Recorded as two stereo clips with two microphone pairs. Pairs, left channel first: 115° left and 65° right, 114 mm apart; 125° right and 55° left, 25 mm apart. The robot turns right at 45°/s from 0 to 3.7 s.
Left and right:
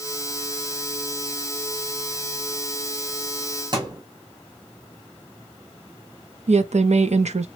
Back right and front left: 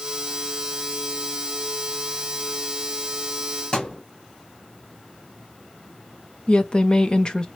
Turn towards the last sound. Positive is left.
turn(degrees=-75)